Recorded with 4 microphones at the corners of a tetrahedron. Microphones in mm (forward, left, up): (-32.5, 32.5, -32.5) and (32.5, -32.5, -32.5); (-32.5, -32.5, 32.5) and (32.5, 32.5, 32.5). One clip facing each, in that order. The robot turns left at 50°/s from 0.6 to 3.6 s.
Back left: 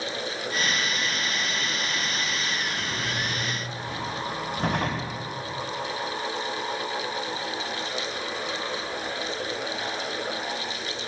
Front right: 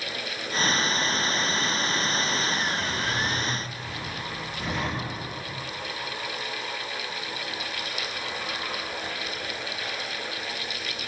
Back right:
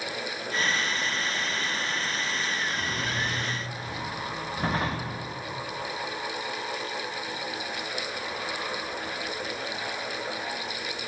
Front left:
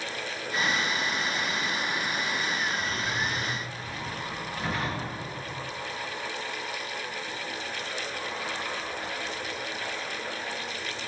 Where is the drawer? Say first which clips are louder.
Front right 2 dB, even; 145° right, 8 m; by 5.2 s 170° left, 8 m.